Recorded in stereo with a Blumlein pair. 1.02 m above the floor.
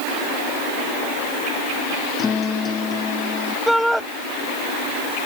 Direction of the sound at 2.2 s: 20° left.